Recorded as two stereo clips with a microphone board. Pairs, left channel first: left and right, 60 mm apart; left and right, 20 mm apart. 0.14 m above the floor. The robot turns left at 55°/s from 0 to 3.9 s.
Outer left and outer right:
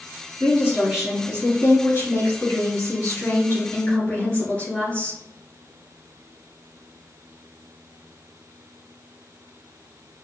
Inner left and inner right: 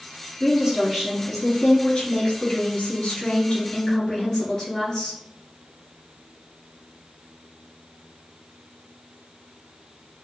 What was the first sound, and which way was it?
A woman speaking, 140° right.